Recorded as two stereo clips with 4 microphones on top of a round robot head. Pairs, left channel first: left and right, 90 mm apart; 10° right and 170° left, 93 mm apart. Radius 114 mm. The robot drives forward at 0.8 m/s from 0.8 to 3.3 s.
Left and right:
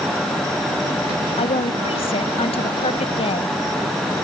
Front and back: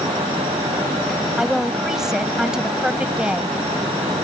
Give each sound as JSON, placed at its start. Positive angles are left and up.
{"t": 1.4, "sound": "a woman speaking", "azimuth_deg": 85}